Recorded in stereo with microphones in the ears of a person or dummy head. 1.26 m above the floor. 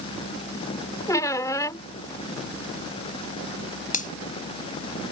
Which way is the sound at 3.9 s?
40° left (ahead or behind).